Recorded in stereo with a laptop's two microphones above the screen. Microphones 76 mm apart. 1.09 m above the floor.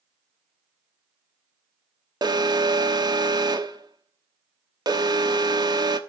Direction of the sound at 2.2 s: 60° right (ahead or behind).